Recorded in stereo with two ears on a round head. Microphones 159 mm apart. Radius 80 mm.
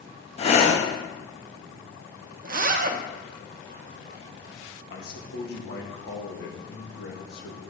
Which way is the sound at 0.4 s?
30° left (ahead or behind).